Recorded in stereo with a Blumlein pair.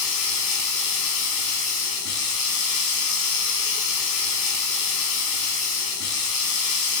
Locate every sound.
0.0 s running water: 45° left, 6 m